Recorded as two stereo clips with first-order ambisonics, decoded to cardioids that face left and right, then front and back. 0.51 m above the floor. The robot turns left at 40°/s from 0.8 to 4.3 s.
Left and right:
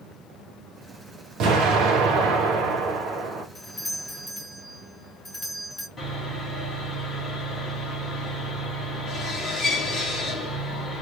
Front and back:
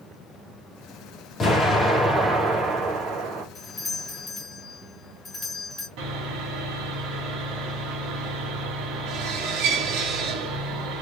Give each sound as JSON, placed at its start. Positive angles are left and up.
{"t": 1.4, "sound": "an explosion", "azimuth_deg": -60, "distance_m": 1.8}
{"t": 3.5, "sound": "a doorbell", "azimuth_deg": 55, "distance_m": 1.2}
{"t": 6.0, "sound": "sawing", "azimuth_deg": 165, "distance_m": 2.5}